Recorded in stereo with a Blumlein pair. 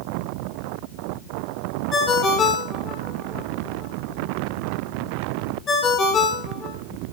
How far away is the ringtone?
About 3.5 m.